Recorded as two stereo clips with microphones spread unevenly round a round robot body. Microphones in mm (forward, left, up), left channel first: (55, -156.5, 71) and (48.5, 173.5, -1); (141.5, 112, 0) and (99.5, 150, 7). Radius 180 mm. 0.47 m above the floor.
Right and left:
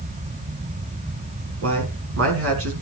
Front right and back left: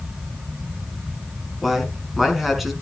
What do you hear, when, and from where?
1.6 s a man speaking: 50° left, 4.5 m